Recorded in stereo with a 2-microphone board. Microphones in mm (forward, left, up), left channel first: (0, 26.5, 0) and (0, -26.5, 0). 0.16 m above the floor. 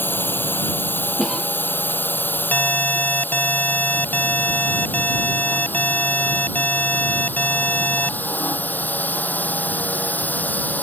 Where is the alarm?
30° left (ahead or behind).